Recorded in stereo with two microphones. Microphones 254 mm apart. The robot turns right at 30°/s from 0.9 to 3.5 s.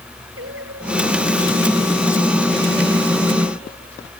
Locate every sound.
0.4 s singing: 50° right; by 4.1 s 30° left